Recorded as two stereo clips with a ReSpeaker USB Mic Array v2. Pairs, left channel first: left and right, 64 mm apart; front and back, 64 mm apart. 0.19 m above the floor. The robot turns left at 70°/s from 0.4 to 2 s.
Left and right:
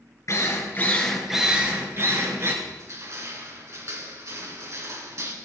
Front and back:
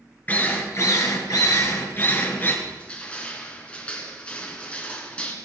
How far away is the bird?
I don't hear a bird.